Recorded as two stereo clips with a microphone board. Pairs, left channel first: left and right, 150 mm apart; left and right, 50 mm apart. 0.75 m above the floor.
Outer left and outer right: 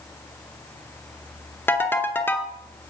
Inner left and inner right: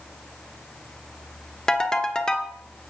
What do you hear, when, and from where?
1.7 s a ringtone: 15° left (ahead or behind), 1.0 m